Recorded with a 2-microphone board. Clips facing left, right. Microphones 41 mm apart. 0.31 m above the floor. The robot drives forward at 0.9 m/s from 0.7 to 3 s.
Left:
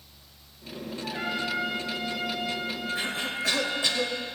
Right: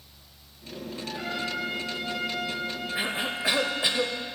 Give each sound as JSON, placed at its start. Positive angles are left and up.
{"t": 1.0, "sound": "a trumpet", "side_deg": 35, "distance_m": 3.5}
{"t": 3.0, "sound": "a cough", "side_deg": -15, "distance_m": 0.9}